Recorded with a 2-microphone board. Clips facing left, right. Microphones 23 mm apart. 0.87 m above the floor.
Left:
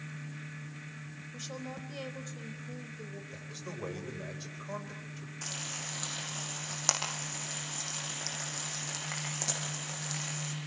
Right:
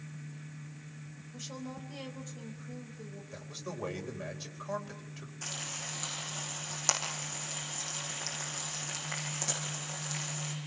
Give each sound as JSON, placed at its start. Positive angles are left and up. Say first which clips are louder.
{"t": 1.3, "sound": "a woman speaking", "louder": "even", "side_deg": 15, "distance_m": 4.0}
{"t": 3.3, "sound": "a man speaking", "louder": "right 1 dB", "side_deg": -15, "distance_m": 4.5}
{"t": 5.4, "sound": "frying", "louder": "even", "side_deg": 15, "distance_m": 10.0}